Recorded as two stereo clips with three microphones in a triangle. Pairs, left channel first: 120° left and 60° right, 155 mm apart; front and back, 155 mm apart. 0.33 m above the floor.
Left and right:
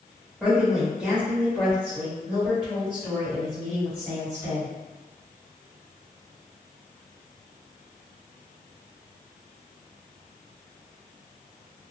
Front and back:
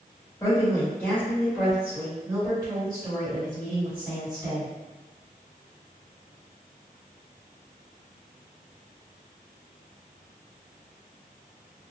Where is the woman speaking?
10° left, 1.3 m; by 4.7 s 145° right, 2 m.